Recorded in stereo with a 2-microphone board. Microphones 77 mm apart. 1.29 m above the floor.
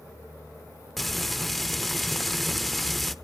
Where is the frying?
Centre (ahead or behind), 0.7 m.